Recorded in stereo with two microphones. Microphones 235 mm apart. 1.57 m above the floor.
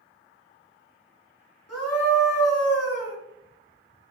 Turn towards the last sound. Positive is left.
turn(degrees=85)